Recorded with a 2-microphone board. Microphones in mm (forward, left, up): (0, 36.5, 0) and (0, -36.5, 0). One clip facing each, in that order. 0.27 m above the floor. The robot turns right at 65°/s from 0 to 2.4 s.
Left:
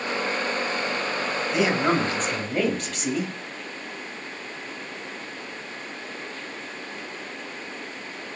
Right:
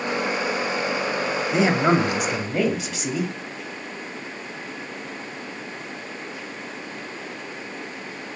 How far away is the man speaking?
About 1.0 m.